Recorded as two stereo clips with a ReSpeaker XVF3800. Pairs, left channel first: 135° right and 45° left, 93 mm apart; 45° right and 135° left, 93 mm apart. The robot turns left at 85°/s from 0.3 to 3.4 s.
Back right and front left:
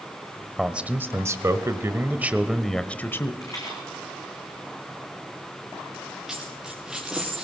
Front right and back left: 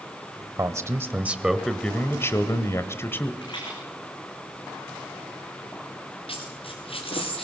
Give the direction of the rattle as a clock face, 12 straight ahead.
3 o'clock.